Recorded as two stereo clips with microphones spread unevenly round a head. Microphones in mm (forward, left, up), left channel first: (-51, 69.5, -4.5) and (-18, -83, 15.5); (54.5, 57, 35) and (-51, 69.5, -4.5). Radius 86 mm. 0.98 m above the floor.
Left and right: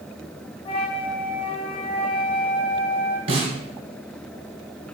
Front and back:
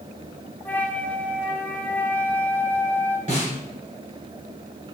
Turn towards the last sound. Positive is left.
turn(degrees=-120)